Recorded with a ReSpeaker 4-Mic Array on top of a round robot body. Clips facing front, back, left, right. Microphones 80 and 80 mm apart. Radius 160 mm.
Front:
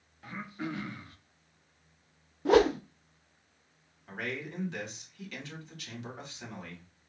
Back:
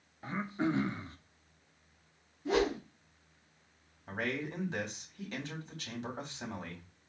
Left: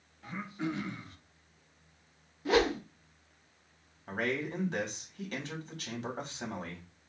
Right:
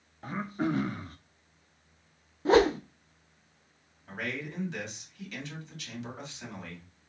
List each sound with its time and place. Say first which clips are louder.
0.2 s throat clearing: back 5 dB, right 5 dB; 125° right, 0.7 m
2.5 s a whoosh: front 7 dB, right 5 dB; 30° right, 0.6 m
4.1 s a man speaking: back 2 dB, left 4 dB; 130° left, 2.5 m